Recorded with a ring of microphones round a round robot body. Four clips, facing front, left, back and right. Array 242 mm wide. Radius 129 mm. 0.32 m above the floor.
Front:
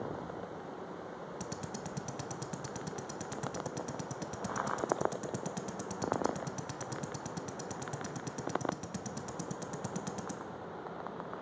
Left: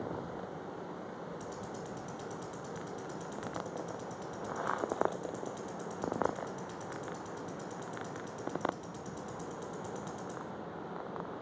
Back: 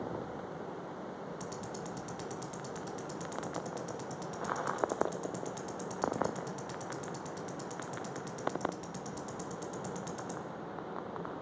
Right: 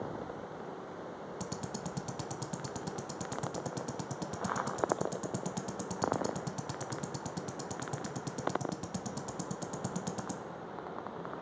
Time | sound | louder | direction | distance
1.4 | ticking | right 2 dB, back 1 dB | 65° right | 0.8 m